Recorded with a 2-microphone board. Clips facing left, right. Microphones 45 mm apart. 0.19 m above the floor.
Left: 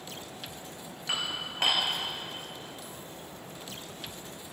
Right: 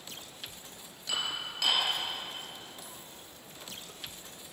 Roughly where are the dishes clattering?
Left.